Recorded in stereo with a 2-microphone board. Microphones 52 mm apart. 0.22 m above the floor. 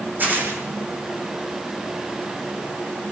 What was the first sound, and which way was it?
Tearing paper, 40° right (ahead or behind).